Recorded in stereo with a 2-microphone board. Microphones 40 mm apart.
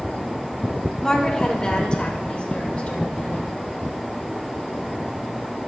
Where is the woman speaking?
15° left (ahead or behind), 1.8 m; by 3.5 s 40° left (ahead or behind), 3 m.